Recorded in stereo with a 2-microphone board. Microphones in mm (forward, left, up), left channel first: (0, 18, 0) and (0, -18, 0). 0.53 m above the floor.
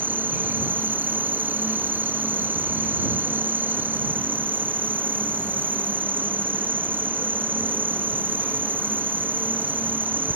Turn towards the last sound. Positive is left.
turn(degrees=-70)  # may be behind; listen again after turning